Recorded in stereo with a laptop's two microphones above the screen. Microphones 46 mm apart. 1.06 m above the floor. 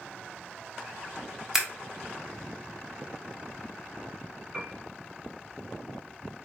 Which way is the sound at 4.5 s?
10° right (ahead or behind).